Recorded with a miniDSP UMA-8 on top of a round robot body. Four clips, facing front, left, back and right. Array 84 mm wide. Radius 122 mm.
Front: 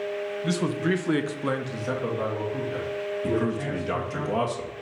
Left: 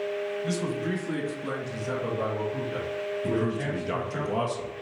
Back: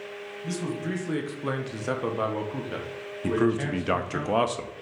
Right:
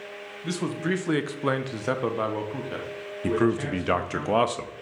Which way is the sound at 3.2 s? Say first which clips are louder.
Right 6 dB, back 4 dB; 120° right.